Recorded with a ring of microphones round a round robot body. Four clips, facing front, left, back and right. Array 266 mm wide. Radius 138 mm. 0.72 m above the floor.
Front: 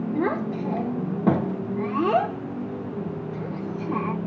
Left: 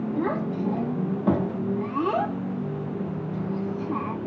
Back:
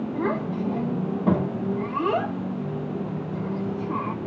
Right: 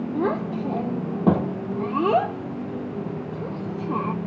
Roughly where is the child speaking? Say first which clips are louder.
Right 3 dB, front 1 dB; ahead right.